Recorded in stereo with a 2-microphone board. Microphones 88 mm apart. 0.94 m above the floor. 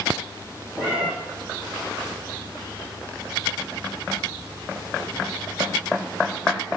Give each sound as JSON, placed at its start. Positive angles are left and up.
{"t": 0.8, "sound": "a cat meowing", "side_deg": -15, "distance_m": 4.5}